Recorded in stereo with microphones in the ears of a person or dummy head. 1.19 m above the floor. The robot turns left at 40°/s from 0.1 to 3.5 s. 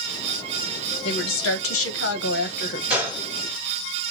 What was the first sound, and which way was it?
A woman speaking, 120° left.